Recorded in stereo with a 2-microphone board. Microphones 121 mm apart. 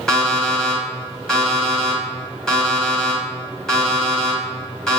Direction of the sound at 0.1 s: 5° left (ahead or behind).